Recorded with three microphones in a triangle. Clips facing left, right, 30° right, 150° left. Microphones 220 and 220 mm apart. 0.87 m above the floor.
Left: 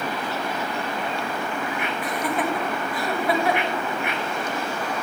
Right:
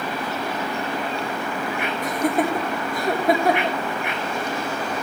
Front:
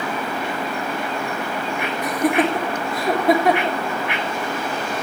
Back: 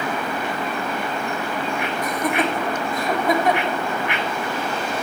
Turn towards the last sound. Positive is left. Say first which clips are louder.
# right 5 dB, front 5 dB
turn(degrees=-45)